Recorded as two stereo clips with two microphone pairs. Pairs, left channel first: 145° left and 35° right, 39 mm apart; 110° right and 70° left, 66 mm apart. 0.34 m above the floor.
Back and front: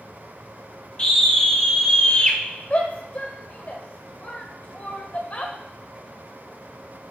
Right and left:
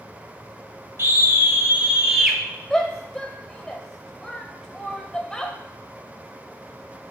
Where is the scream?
95° left, 1.6 m; by 2.4 s 155° left, 1.2 m.